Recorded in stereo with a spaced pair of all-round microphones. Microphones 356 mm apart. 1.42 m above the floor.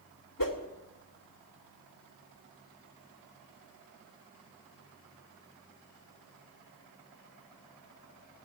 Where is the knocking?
No knocking in this recording.